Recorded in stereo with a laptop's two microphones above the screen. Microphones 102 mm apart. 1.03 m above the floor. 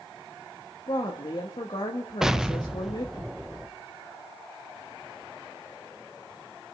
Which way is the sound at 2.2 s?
5° right (ahead or behind).